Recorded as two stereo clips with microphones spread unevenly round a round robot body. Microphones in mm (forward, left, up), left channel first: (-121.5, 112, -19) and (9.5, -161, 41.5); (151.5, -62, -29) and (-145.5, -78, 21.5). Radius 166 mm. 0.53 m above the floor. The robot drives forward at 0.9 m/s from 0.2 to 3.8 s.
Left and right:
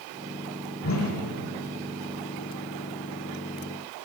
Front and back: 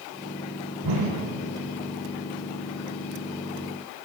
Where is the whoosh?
165° left, 6.5 m.